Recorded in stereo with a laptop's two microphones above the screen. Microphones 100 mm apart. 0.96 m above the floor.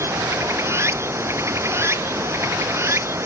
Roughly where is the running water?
Right.